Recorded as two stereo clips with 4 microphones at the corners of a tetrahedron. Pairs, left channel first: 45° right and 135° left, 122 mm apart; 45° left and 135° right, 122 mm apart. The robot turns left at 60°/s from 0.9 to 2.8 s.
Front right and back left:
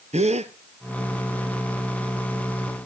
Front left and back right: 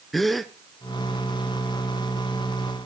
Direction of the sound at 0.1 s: 135° left.